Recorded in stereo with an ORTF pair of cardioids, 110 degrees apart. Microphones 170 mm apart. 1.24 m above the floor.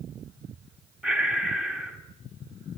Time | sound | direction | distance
1.0 | breathing | straight ahead | 2.5 m